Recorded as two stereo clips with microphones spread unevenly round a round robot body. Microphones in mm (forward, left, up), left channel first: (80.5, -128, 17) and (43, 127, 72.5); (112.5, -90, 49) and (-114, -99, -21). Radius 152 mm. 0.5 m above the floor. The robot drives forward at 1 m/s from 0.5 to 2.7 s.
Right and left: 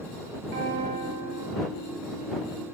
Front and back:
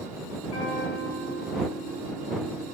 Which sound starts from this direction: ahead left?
A guitar, at 0.5 s.